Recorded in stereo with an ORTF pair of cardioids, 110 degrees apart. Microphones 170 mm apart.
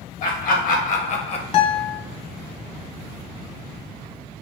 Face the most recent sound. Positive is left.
turn(degrees=30)